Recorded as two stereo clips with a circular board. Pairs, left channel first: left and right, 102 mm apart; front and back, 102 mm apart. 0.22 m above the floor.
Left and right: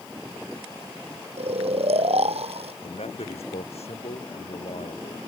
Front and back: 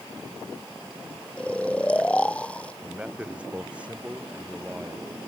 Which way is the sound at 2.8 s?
100° left.